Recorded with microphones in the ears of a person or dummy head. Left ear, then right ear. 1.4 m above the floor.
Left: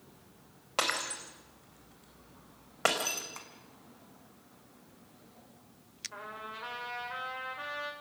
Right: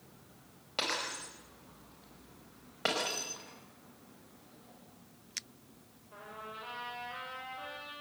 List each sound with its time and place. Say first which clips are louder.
0.8 s breaking glass: left 3 dB; 40° left (ahead or behind), 4.5 m
3.4 s tapping: left 3 dB; 70° left (ahead or behind), 5.5 m
6.1 s a trumpet: left 1 dB; 60° left (ahead or behind), 5 m